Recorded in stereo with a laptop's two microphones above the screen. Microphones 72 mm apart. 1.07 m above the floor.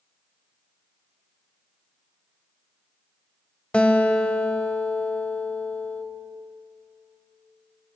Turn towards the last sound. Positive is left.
turn(degrees=15)  # may be behind; listen again after turning